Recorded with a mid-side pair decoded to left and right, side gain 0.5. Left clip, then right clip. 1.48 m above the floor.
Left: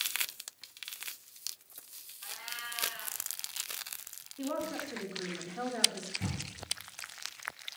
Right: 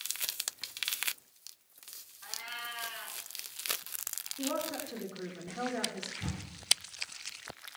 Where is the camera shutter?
45° left, 7.5 m.